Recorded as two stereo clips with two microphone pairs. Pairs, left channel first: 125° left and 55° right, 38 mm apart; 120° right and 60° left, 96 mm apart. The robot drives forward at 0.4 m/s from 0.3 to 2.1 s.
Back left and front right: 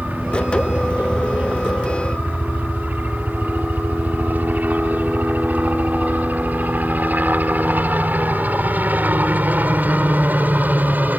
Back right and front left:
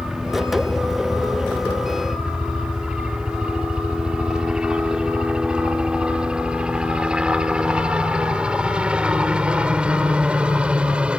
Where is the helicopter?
25° right; by 11.2 s 20° right.